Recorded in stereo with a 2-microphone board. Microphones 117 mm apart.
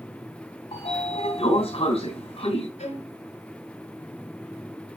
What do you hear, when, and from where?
0.7 s a sliding door: 55° left (ahead or behind), 2.5 m
2.8 s a violin: 80° left, 3.5 m